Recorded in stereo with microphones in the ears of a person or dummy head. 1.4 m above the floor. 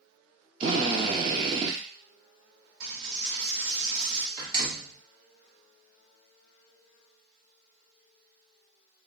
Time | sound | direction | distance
0.6 | a drill | 25° right (ahead or behind) | 0.6 m
2.8 | a dropped coin | 60° right (ahead or behind) | 1.4 m
4.4 | a door slam | 50° right (ahead or behind) | 1.3 m